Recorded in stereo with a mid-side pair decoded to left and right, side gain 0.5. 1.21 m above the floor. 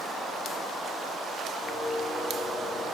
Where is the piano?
65° left, 3.5 m.